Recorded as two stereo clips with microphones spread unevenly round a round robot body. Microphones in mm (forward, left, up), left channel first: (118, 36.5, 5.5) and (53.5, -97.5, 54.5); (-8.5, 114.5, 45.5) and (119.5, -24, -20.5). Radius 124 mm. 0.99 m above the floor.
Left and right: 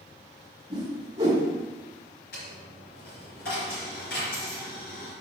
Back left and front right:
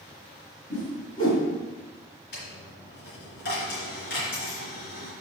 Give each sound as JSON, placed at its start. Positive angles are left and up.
{"t": 0.7, "sound": "a whoosh", "azimuth_deg": 180, "distance_m": 2.0}
{"t": 2.3, "sound": "a dropped coin", "azimuth_deg": 115, "distance_m": 3.5}